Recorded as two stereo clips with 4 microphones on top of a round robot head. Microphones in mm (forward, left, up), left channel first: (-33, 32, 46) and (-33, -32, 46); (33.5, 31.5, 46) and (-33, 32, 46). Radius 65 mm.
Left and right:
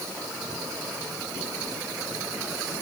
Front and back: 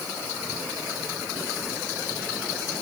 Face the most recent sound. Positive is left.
No sound to turn to.